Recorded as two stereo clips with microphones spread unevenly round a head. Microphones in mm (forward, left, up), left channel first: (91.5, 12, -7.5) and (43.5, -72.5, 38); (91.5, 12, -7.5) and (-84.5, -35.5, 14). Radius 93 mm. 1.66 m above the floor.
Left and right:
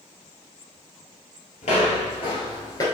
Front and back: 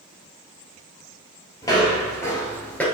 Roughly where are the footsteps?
Left.